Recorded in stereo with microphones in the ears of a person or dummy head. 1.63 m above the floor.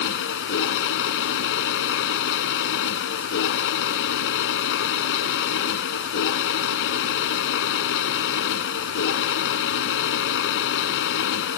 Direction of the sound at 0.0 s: 70° left (ahead or behind).